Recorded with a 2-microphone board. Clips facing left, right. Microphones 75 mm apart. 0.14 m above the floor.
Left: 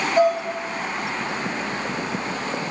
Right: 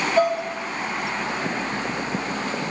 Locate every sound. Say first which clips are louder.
0.2 s dishes clattering: left 2 dB; 10° left (ahead or behind), 1.4 m